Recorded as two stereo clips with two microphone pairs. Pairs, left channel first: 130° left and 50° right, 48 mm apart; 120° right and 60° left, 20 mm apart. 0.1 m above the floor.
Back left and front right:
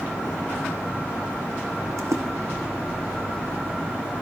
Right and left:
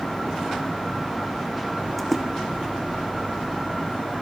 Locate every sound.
2.0 s a splash: 40° right, 1.8 m